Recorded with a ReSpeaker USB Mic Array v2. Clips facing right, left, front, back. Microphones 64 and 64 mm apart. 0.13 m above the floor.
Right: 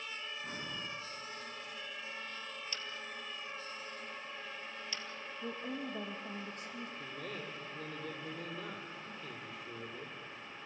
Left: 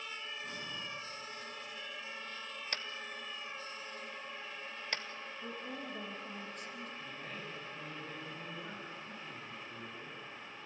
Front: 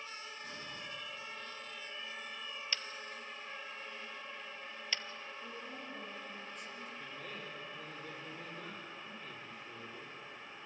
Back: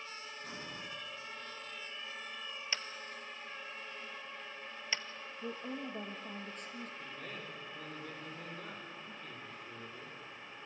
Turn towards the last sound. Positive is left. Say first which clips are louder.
# right 2 dB, even
turn(degrees=-85)